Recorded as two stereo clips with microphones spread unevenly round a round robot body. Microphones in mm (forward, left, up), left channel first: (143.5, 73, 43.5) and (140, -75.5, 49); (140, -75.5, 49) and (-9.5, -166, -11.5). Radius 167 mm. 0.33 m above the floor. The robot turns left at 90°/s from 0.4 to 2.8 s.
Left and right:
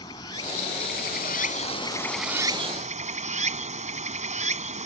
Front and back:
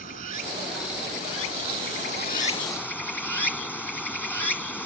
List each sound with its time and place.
0.0 s running water: 160° left; by 4.9 s 55° right